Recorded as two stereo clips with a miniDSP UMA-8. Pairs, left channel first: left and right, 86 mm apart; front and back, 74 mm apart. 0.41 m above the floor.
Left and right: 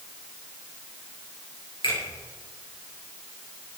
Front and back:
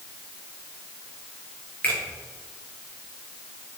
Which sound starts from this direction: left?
A finger snap, at 1.8 s.